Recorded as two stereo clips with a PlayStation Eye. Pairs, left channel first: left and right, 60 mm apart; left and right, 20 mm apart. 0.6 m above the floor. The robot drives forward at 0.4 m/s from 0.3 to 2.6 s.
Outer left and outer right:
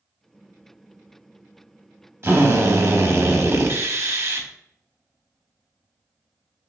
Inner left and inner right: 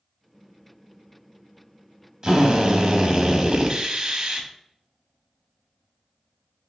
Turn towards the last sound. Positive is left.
turn(degrees=-50)  # may be behind; listen again after turning